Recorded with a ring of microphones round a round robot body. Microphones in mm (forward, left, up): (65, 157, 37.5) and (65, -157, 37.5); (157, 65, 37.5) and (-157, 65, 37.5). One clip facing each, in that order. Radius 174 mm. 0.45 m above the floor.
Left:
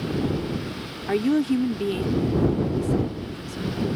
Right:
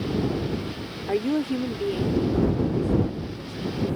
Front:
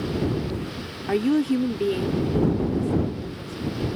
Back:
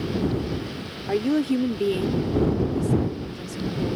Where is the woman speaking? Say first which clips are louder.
Left 3 dB, front 1 dB; 45° left; by 4.0 s 150° left.